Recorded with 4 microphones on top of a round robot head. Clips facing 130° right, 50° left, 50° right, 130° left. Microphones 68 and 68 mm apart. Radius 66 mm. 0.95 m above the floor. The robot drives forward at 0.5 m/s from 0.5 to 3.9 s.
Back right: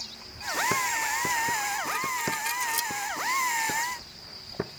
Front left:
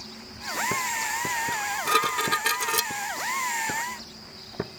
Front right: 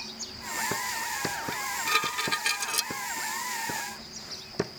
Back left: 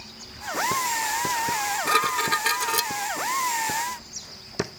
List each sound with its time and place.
1.5 s dishes clattering: 70° left; by 2.9 s 85° left